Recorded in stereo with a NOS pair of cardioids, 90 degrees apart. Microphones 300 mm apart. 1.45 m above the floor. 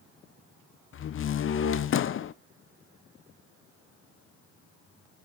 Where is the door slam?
45° left, 0.7 m.